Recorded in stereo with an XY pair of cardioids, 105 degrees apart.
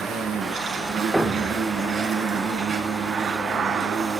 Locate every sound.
0.0 s an insect: 45° right, 5.5 m
1.1 s a thud: 5° right, 1.3 m